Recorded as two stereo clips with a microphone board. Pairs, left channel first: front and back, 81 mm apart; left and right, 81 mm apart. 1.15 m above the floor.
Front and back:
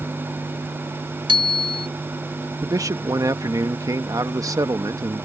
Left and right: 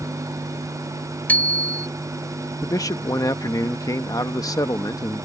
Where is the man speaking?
135° left.